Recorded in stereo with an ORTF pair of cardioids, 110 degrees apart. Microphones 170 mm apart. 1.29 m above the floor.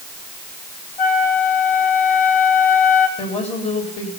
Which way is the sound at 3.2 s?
40° left.